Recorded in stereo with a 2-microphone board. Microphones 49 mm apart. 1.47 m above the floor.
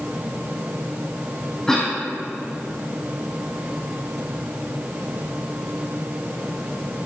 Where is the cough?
15° left (ahead or behind), 2.5 m.